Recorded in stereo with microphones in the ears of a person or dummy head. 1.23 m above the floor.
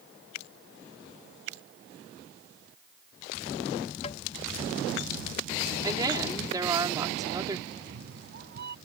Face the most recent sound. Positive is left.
turn(degrees=-55)  # may be behind; listen again after turning